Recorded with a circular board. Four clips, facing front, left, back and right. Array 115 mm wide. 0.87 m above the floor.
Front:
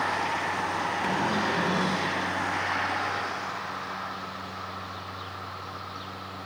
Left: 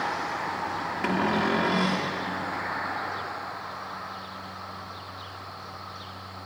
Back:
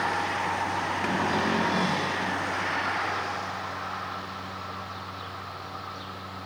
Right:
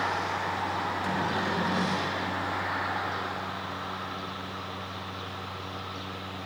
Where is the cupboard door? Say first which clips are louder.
Left 8 dB, back 1 dB; 115° left, 1.5 m.